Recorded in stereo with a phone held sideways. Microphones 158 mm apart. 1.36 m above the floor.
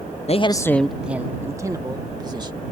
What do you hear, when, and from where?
0.3 s a man speaking: 45° left (ahead or behind); by 2.6 s 30° right (ahead or behind)